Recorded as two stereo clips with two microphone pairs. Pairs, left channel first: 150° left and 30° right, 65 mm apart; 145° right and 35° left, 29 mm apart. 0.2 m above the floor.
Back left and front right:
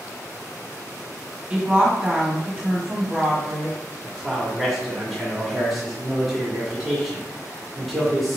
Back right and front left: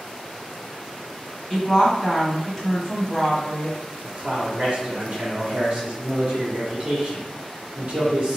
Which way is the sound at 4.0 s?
65° left.